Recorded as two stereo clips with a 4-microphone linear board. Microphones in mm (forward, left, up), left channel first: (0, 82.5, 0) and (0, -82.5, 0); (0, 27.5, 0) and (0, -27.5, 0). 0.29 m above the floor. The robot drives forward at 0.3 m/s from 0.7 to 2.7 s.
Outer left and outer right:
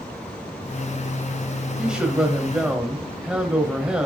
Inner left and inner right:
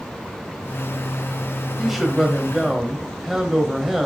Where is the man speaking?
5° right (ahead or behind), 1.7 m.